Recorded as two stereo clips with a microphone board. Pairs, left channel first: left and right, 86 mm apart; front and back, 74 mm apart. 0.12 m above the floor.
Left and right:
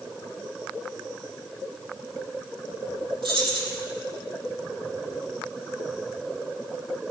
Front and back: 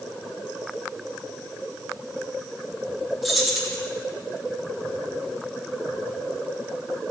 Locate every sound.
3.2 s keys jangling: 90° right, 3 m